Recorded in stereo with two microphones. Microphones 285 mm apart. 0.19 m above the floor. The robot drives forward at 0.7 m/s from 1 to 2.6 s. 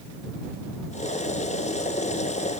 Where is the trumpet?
No trumpet in this recording.